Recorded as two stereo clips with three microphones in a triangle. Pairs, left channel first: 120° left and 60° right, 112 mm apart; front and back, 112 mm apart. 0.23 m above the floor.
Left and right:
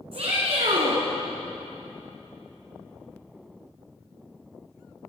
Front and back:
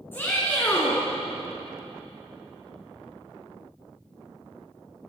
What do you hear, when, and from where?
0.1 s a shout: 70° right, 2 m